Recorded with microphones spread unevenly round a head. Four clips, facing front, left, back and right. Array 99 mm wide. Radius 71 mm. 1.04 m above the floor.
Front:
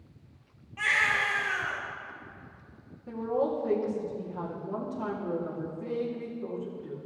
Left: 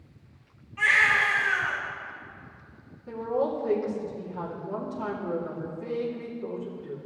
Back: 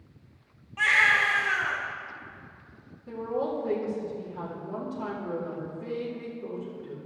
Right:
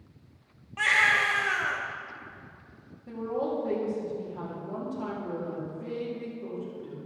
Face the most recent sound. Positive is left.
turn(degrees=-15)